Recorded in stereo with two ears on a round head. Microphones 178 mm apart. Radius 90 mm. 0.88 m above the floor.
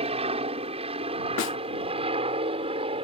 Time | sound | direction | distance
0.0 | an aircraft | 30° right (ahead or behind) | ?
1.4 | a snare drum | 65° left (ahead or behind) | ?